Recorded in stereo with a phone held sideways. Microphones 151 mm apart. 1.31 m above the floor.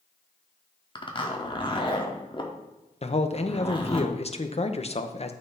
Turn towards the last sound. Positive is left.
turn(degrees=45)  # may be behind; listen again after turning